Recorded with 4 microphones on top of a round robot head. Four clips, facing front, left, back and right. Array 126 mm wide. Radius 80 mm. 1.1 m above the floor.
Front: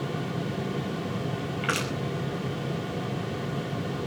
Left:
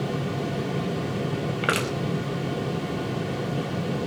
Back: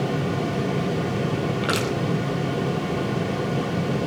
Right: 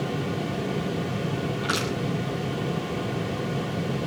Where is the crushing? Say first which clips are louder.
Left 4 dB, back 3 dB; 115° left, 5 m.